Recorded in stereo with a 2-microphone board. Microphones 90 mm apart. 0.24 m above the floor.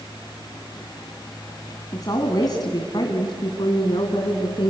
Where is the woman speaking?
45° left (ahead or behind), 2 m; by 4.7 s 60° left (ahead or behind), 3 m.